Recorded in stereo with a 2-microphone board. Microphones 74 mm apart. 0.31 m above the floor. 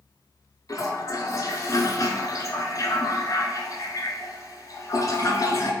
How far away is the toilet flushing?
About 0.7 m.